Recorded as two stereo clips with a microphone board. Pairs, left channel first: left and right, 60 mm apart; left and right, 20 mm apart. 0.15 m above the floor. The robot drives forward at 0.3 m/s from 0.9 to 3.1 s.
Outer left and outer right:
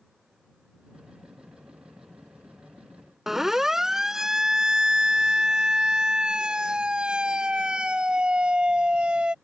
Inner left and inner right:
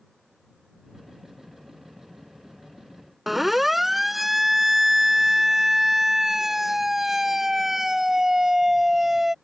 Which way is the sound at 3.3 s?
5° right (ahead or behind).